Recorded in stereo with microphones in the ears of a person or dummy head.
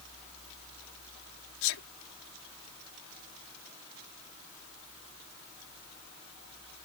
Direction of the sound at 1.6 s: 70° left (ahead or behind).